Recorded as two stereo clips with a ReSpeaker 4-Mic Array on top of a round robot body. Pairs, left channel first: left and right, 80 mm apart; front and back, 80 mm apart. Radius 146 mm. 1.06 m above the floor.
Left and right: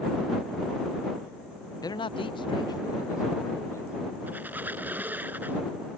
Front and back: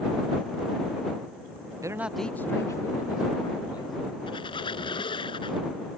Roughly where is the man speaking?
Behind left.